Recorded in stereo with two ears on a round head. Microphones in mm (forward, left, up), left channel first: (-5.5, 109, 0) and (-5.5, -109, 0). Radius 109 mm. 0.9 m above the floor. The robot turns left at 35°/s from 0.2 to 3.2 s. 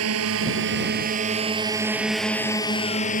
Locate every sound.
0.0 s a drone: 65° right (ahead or behind); by 3.2 s 35° left (ahead or behind)